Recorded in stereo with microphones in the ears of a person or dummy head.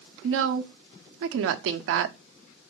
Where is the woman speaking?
75° right (ahead or behind), 0.5 m.